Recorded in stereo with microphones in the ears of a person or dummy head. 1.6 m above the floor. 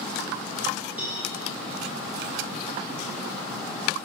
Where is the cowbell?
10° right (ahead or behind), 2 m.